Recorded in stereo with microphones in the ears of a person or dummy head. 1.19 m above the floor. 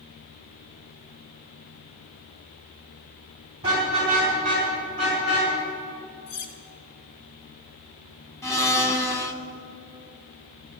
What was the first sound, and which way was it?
A car horn, 30° right (ahead or behind).